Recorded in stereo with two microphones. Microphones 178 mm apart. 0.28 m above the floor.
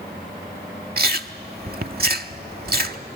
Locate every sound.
1.0 s chewing: 60° right (ahead or behind), 0.6 m